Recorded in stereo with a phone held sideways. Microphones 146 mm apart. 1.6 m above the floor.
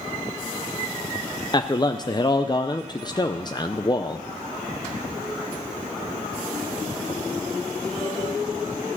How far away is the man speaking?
About 0.5 m.